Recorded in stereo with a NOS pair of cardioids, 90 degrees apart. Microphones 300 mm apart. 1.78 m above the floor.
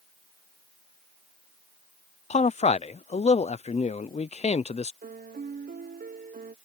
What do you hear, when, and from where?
2.3 s a man speaking: 20° left
5.0 s a piano: 30° right